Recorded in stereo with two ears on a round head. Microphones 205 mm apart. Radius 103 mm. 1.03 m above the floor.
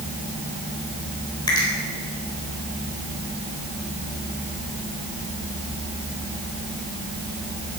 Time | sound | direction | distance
1.5 | a finger snap | 20° left (ahead or behind) | 4 m